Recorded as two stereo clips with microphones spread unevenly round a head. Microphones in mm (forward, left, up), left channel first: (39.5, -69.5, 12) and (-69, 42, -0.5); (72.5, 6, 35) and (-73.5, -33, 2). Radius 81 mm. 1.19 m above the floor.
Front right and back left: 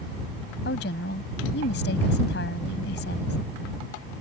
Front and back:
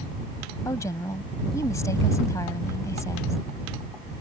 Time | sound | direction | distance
0.7 | a woman speaking | 55° right | ?